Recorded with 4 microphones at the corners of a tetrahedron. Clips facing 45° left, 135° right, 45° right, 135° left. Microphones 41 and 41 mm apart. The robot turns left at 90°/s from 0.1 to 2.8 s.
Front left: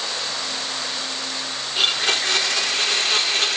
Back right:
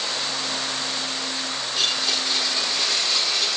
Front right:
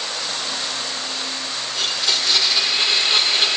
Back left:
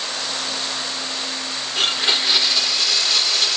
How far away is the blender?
About 0.8 m.